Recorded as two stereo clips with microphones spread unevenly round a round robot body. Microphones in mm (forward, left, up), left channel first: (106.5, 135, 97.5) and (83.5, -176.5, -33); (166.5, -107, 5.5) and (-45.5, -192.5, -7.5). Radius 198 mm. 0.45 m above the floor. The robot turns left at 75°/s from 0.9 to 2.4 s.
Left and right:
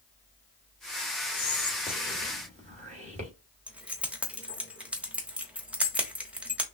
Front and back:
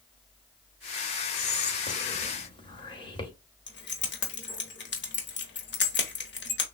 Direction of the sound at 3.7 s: 20° right.